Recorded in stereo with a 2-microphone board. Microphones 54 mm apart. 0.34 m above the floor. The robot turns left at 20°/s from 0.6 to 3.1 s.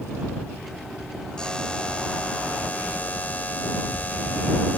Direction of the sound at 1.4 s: 150° left.